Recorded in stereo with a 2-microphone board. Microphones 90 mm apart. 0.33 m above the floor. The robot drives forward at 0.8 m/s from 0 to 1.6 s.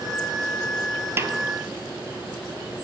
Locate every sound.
1.2 s a snare drum: 25° right (ahead or behind), 1.1 m